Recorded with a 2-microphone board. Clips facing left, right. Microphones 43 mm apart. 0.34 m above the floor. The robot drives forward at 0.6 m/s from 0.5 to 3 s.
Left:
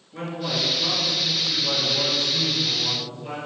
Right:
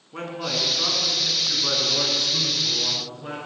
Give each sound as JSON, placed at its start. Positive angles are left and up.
{"t": 0.1, "sound": "a man speaking", "side_deg": -65, "distance_m": 3.0}